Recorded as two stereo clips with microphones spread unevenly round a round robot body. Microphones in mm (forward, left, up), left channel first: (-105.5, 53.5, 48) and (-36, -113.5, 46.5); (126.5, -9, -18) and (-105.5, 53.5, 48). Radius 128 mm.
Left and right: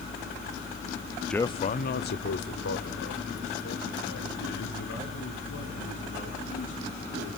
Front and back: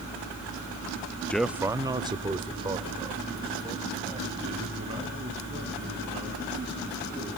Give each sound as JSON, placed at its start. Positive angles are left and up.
{"t": 1.3, "sound": "a man speaking", "azimuth_deg": 25, "distance_m": 0.6}